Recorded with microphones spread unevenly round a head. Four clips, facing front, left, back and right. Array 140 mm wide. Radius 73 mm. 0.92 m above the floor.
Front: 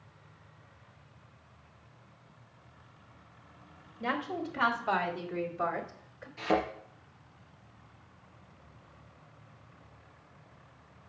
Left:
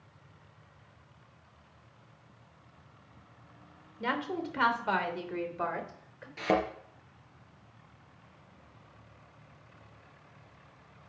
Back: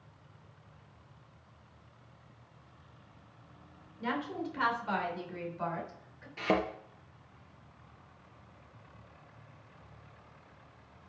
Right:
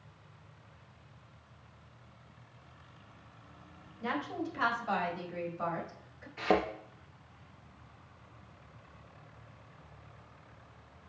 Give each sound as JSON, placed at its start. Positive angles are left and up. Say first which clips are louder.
{"t": 4.0, "sound": "a woman speaking", "louder": "left 2 dB, front 2 dB", "azimuth_deg": 70, "distance_m": 3.0}
{"t": 6.4, "sound": "a thud", "louder": "even, front 1 dB", "azimuth_deg": 125, "distance_m": 3.5}